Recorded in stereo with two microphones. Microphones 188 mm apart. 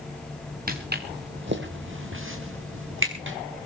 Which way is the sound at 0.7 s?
50° right (ahead or behind).